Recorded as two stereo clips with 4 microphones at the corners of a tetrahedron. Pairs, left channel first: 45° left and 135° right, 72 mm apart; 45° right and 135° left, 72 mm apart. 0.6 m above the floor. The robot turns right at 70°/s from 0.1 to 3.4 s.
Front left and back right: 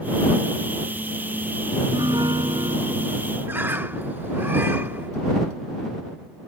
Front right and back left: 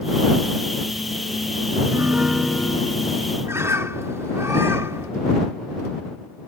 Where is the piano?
175° right; by 3.4 s 65° right.